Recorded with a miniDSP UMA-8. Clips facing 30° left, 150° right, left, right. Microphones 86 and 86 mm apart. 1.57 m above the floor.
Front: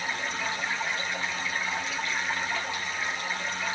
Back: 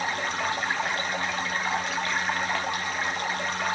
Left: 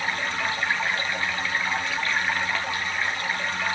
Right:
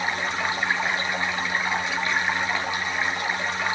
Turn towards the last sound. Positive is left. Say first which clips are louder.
# back 4 dB, right 1 dB
turn(degrees=-160)